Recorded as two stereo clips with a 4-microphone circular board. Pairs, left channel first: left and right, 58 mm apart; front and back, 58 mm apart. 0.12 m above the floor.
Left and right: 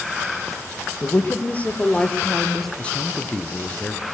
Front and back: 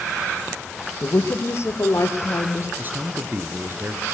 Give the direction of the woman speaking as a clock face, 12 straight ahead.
11 o'clock.